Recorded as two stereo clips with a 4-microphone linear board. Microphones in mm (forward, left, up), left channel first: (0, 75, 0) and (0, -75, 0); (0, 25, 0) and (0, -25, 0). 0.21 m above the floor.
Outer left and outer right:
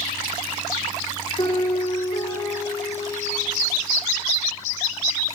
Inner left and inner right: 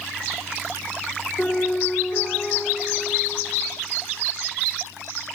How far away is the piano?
About 6.5 m.